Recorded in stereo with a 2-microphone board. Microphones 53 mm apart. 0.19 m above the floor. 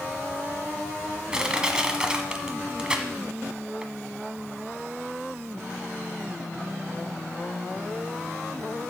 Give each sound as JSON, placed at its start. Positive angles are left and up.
{"t": 1.3, "sound": "crushing", "side_deg": -15, "distance_m": 1.3}